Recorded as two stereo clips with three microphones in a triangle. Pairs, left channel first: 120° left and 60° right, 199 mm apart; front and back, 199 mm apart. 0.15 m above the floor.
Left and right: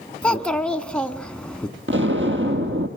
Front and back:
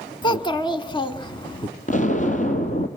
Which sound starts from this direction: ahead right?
An explosion, at 1.9 s.